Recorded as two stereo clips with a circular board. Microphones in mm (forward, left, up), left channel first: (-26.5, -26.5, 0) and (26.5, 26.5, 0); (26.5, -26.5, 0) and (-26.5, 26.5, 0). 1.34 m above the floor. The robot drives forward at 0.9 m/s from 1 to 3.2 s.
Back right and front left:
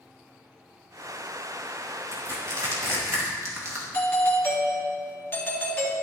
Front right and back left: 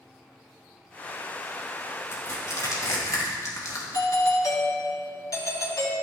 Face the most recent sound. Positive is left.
turn(degrees=-70)